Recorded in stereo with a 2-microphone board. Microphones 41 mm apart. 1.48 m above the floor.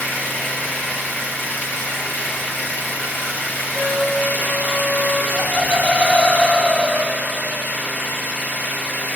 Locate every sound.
0.0 s an engine running: 45° left (ahead or behind), 2.5 m
3.7 s a trumpet: 30° left (ahead or behind), 5 m
5.3 s laughter: 25° left (ahead or behind), 2.5 m